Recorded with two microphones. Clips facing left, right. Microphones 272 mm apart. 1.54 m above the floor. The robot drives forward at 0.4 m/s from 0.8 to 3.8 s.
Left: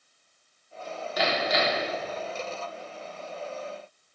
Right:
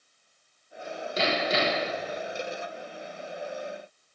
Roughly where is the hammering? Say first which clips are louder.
Even; right.